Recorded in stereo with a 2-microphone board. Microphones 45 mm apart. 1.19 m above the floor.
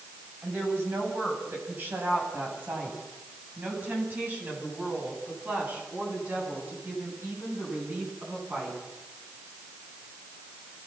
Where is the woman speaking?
50° right (ahead or behind), 8 m; by 8.8 s 40° right (ahead or behind), 11.5 m.